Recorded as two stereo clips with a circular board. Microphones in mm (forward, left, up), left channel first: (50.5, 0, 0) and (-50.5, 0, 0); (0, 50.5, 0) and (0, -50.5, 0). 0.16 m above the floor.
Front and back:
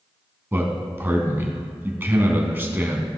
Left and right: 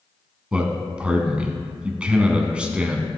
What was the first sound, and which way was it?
A man speaking, 150° right.